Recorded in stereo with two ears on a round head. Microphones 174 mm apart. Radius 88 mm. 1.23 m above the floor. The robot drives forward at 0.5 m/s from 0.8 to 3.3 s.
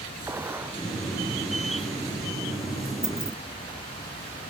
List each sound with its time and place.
0.3 s a gunshot: 10° right (ahead or behind)
3.0 s keys jangling: 5° right (ahead or behind)